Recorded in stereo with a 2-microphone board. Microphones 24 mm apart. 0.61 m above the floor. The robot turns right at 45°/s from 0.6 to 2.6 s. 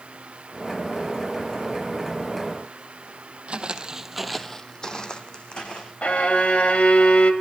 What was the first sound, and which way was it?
Footsteps, 55° right (ahead or behind).